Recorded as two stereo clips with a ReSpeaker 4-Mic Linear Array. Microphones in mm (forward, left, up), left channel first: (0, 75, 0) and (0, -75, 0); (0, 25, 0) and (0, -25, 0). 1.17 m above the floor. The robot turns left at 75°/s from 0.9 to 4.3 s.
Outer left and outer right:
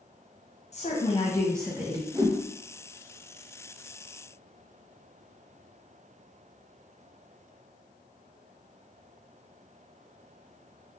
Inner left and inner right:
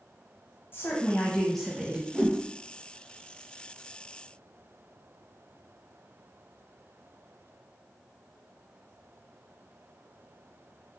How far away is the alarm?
I don't hear an alarm.